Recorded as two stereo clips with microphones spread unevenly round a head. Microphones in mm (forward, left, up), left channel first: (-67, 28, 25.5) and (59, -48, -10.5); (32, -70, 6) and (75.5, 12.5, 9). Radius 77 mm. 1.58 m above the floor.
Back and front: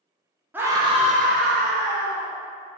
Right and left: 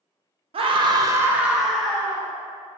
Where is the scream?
45° left, 0.6 m; by 2.3 s 40° right, 1.0 m.